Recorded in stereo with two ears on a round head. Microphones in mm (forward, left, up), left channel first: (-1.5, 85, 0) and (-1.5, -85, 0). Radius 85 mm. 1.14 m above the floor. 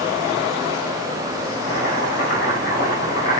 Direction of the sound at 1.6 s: 60° left (ahead or behind).